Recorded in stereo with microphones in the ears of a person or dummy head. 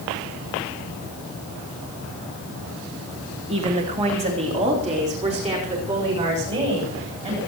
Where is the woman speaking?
30° right (ahead or behind), 2.5 m; by 7.4 s 35° right (ahead or behind), 8 m.